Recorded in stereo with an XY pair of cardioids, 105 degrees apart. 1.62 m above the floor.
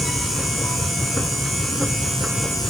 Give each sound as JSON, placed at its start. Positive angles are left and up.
{"t": 0.0, "sound": "a machine running", "azimuth_deg": 0}